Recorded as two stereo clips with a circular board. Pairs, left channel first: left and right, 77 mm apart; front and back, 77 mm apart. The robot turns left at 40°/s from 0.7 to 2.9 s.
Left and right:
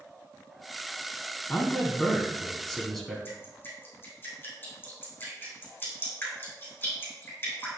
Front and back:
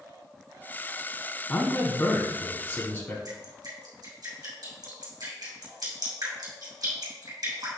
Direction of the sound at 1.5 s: 60° left.